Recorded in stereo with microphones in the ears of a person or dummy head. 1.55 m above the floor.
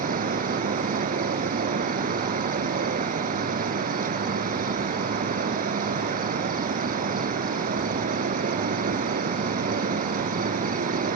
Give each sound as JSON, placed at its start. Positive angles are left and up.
{"t": 0.0, "sound": "an insect", "side_deg": -35}